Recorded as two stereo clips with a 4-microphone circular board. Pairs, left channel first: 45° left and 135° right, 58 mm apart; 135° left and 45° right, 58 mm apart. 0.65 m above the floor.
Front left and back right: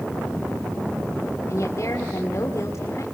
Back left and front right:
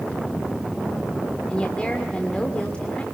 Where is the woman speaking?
65° left, 2.5 m.